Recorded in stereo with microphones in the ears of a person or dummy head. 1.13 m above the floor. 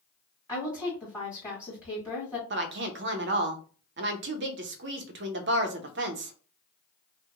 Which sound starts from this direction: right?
A woman speaking, at 2.5 s.